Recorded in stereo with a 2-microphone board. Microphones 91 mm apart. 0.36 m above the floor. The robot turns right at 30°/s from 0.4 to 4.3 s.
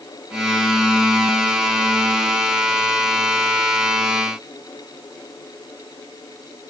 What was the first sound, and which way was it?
Only background noise.